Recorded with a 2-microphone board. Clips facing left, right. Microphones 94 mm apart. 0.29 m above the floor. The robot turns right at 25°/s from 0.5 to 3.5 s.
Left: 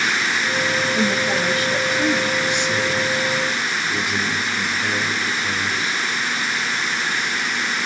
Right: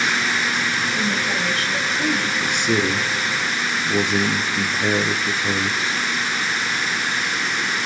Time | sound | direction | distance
0.9 | a woman speaking | 135° left | 1.7 m
2.4 | a man speaking | 55° right (ahead or behind) | 4 m